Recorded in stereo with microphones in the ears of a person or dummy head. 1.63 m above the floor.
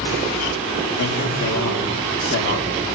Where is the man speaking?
65° left (ahead or behind), 5 m.